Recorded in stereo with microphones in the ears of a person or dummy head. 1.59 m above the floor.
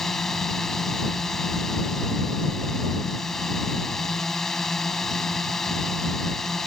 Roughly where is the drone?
Centre.